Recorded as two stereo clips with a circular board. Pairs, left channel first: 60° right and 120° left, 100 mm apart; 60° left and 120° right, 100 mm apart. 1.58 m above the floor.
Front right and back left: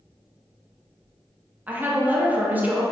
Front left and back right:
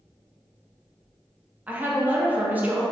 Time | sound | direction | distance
1.7 | a woman speaking | straight behind | 0.5 m